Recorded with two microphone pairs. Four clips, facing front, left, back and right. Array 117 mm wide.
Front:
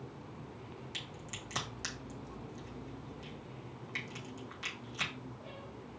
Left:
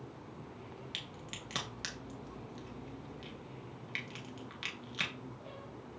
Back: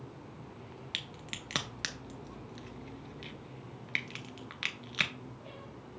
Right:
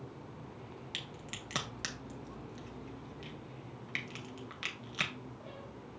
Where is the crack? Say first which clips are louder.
Right 1 dB, back 1 dB; 170° right, 0.6 m.